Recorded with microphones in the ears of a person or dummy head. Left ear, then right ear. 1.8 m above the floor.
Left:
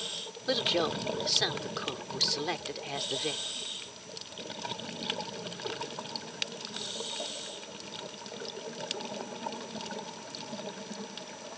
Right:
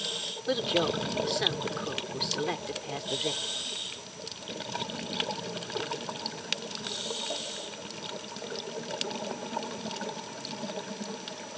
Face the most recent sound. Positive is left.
turn(degrees=20)  # may be behind; listen again after turning